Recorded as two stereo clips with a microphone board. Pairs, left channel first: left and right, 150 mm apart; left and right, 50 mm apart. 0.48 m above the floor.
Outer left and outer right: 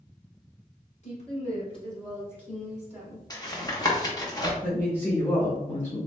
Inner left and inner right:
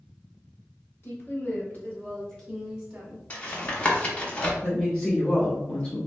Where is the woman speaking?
50° left (ahead or behind), 1.6 m; by 3.2 s 25° right (ahead or behind), 1.1 m.